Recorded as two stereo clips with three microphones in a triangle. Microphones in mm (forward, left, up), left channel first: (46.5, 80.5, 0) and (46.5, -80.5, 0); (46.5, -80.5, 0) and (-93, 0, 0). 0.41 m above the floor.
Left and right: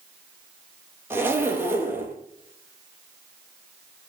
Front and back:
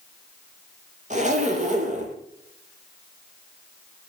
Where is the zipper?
165° right, 2.5 m.